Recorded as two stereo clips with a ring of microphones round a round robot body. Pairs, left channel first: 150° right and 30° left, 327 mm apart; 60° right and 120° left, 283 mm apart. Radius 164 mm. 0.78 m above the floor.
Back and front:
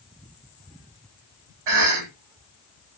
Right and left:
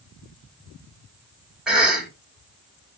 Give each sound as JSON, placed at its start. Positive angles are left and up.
{"t": 1.7, "sound": "a cough", "azimuth_deg": 35, "distance_m": 3.0}